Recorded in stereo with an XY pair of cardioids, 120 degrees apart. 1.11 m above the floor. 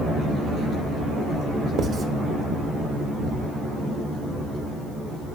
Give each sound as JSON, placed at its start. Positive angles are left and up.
{"t": 1.8, "sound": "writing", "azimuth_deg": -45, "distance_m": 1.0}